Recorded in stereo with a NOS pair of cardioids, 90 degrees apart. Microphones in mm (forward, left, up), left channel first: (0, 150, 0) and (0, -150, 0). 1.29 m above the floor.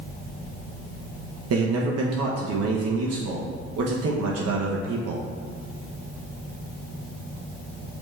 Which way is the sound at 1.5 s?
50° right.